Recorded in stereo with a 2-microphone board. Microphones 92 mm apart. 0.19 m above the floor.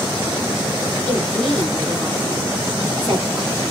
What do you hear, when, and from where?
1.1 s a woman speaking: 35° right (ahead or behind), 2.5 m